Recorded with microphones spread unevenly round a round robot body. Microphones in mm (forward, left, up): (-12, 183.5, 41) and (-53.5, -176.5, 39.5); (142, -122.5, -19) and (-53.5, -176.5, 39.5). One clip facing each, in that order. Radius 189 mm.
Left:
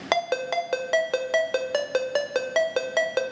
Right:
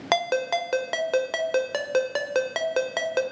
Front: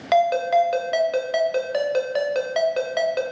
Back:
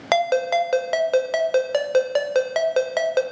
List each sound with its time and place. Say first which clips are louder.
0.1 s a ringtone: right 1 dB, front 1 dB; 175° left, 0.6 m